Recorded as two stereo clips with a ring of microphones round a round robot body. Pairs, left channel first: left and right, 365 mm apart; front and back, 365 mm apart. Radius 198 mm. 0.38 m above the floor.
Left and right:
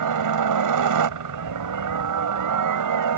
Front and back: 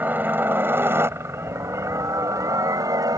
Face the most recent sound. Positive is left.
turn(degrees=-105)